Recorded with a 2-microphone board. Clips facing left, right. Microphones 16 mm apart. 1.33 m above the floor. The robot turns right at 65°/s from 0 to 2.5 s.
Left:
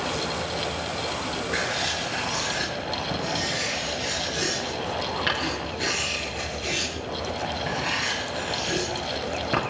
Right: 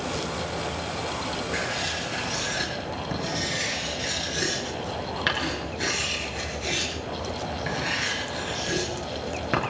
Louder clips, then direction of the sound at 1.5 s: Left 3 dB; 35° left (ahead or behind).